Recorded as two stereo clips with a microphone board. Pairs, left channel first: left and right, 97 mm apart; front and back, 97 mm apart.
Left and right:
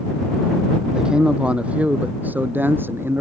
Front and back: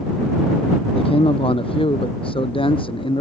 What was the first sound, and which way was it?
A man speaking, 10° right.